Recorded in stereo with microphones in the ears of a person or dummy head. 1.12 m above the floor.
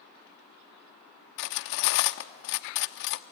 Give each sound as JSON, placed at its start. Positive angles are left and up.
{"t": 1.4, "sound": "cutlery clinking", "side_deg": 55, "distance_m": 0.8}